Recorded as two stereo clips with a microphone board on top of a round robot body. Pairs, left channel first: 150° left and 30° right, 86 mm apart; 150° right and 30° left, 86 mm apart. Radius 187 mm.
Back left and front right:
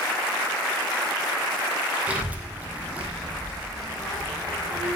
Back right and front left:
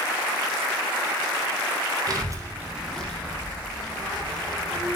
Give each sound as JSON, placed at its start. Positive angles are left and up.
{"t": 2.1, "sound": "a child speaking", "azimuth_deg": 40, "distance_m": 0.9}